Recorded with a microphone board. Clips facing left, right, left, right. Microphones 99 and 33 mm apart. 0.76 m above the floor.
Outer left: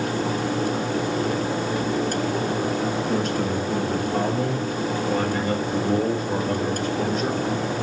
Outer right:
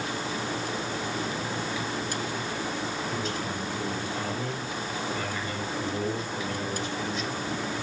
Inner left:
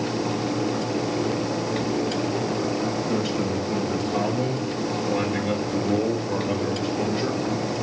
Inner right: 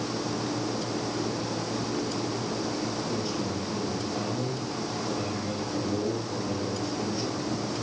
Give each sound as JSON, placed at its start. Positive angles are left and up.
{"t": 3.1, "sound": "a man speaking", "side_deg": 70, "distance_m": 7.0}